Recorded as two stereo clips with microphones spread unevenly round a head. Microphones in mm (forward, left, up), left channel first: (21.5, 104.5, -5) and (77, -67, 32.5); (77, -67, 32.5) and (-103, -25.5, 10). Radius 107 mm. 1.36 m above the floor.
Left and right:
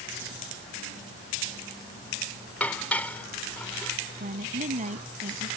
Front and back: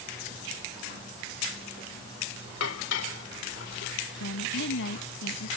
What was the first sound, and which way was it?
Dishes clattering, 25° left.